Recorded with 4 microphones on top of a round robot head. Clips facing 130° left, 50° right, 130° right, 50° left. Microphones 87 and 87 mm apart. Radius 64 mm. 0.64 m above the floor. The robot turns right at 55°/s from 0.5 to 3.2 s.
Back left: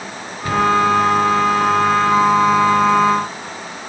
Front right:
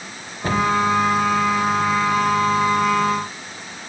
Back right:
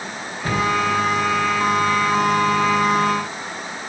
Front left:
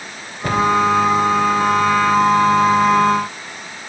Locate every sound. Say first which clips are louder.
0.4 s a cupboard door: back left 3 dB, front left 4 dB; 15° left, 4 m; by 0.7 s 20° left, 4 m